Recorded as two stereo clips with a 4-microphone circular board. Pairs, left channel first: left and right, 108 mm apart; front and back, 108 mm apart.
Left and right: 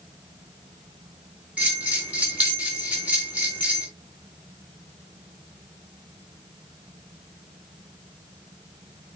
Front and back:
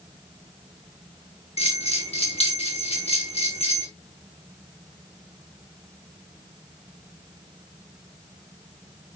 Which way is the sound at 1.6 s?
15° right.